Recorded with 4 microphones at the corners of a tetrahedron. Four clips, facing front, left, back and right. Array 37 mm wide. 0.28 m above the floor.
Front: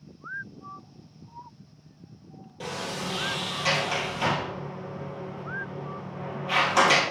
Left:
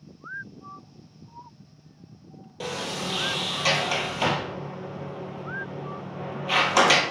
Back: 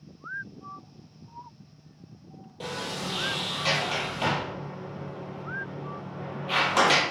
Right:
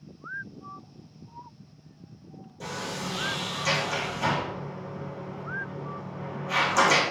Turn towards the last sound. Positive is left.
turn(degrees=85)